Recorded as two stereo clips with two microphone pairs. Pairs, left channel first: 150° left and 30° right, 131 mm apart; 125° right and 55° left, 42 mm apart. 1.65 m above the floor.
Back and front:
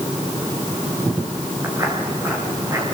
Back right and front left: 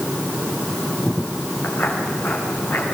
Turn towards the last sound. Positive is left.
turn(degrees=-90)